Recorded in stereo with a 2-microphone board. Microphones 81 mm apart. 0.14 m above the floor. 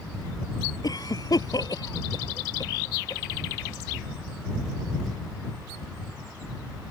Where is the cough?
55° left (ahead or behind).